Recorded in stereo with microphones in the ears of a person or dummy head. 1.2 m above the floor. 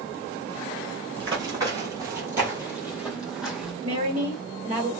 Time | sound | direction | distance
1.2 | running footsteps | 30° right (ahead or behind) | 1.4 m
3.8 | a woman speaking | 45° right (ahead or behind) | 2 m